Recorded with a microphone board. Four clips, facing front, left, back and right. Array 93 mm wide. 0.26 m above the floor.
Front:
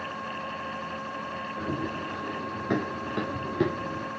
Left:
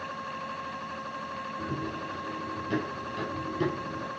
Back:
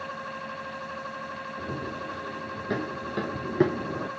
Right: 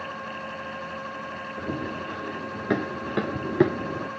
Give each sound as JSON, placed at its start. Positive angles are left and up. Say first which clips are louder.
{"t": 1.6, "sound": "running footsteps", "louder": "right 4 dB, front 3 dB", "azimuth_deg": -65, "distance_m": 3.5}